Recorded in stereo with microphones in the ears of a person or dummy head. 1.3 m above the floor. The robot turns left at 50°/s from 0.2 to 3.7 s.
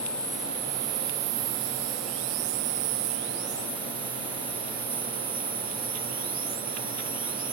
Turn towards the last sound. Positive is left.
turn(degrees=-170)